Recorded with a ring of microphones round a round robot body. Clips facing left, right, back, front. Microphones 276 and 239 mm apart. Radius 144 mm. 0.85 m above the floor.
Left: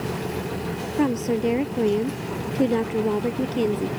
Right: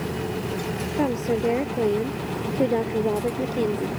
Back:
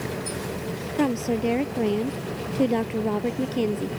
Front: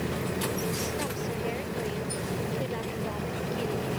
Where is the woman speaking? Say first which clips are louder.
Left 2 dB, back 10 dB; 160° left.